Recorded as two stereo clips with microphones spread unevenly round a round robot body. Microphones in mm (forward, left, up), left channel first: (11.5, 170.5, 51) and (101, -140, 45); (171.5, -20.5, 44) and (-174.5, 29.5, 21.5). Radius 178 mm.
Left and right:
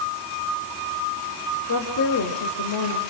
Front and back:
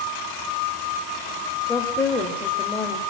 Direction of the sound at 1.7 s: 80° left.